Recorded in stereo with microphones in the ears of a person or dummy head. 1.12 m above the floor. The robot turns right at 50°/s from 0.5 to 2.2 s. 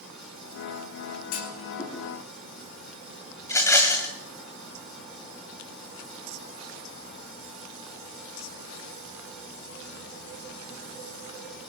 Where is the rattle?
15° left (ahead or behind), 1.8 m.